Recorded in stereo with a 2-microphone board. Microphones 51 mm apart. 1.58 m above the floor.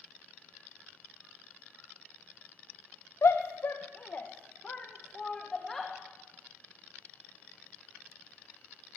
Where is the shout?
60° left (ahead or behind), 1.2 m; by 5.9 s 5° left (ahead or behind), 2.5 m.